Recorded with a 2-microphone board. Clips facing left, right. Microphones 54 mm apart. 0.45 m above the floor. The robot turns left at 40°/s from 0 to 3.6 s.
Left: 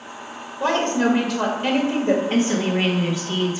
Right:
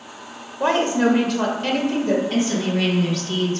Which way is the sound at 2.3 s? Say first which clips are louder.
Left 1 dB; 70° left.